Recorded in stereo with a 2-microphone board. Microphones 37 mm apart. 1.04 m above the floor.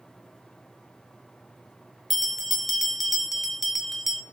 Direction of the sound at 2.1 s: Centre (ahead or behind).